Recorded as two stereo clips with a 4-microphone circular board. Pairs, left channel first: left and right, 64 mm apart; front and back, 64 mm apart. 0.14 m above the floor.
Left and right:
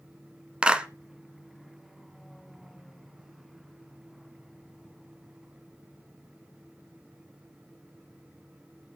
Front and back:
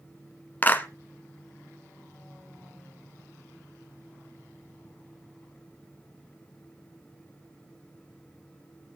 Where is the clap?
35° right, 1.0 m.